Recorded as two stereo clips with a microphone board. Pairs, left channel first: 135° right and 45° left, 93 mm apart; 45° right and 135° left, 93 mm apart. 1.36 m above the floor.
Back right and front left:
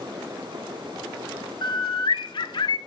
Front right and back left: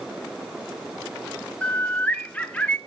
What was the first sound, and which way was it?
A bird, 120° right.